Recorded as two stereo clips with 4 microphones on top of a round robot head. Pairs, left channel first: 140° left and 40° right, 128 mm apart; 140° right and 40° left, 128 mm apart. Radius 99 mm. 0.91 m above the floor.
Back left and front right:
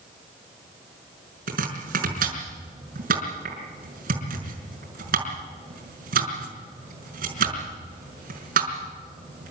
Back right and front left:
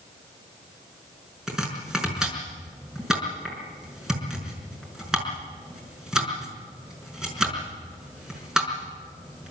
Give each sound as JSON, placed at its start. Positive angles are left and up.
{"t": 1.5, "sound": "chopping", "azimuth_deg": -45, "distance_m": 5.5}